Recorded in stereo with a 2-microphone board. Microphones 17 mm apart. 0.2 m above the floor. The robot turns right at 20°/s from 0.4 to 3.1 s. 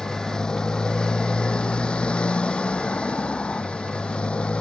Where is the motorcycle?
40° left; by 4.6 s 95° left.